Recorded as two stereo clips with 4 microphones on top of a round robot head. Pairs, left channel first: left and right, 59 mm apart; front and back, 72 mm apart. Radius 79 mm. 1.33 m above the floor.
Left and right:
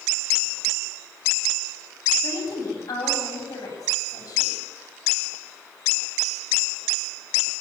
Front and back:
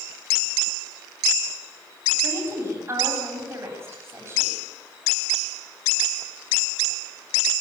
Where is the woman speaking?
125° left, 8.5 m.